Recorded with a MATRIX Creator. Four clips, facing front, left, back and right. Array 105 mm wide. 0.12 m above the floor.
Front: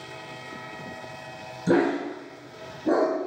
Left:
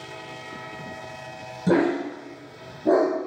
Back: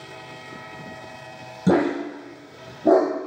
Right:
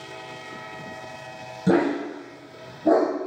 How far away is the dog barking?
About 1.2 m.